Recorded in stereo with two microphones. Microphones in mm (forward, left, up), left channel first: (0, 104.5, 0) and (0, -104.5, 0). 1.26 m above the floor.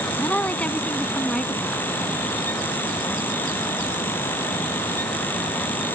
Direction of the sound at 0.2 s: 5° left (ahead or behind).